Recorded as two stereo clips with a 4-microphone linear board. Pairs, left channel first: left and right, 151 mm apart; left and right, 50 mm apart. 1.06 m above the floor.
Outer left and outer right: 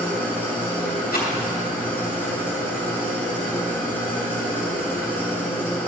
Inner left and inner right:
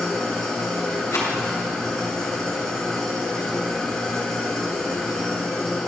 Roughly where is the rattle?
Left.